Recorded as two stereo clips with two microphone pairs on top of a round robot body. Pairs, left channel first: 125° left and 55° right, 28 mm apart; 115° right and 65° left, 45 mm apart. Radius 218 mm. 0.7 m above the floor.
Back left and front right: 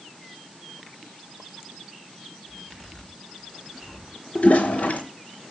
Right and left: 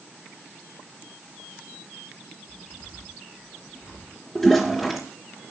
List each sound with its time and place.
2.5 s a zipper: 155° right, 8 m
4.3 s a toilet flushing: 160° left, 0.6 m